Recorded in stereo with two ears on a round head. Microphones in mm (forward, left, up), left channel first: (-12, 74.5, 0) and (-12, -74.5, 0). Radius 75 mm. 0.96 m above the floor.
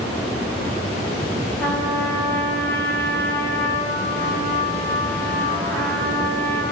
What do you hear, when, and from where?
1.6 s a trumpet: 15° left (ahead or behind), 7 m